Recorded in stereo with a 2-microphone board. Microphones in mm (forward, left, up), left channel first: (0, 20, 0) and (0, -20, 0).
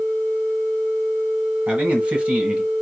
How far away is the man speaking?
About 1.7 m.